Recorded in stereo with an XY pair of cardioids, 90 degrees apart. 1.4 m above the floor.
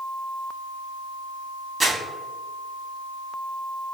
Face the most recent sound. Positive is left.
turn(degrees=-25)